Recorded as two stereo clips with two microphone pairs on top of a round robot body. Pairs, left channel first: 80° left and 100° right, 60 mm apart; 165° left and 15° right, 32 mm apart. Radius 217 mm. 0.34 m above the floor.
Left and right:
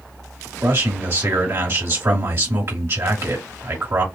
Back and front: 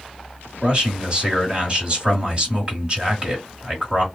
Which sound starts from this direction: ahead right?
A man speaking, at 0.6 s.